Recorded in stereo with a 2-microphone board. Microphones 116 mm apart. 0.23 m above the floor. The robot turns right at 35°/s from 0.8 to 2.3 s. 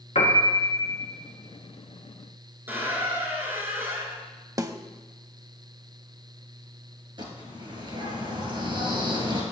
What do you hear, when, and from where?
0.1 s a piano: 65° left (ahead or behind), 1.9 m
2.7 s a squeak: 20° right (ahead or behind), 2 m
4.6 s a snare drum: 30° right (ahead or behind), 0.6 m
7.2 s a bird: 40° right (ahead or behind), 2.5 m